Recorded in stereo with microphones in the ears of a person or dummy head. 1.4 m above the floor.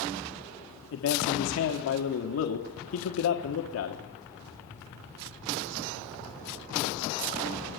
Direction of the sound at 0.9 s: 65° left (ahead or behind).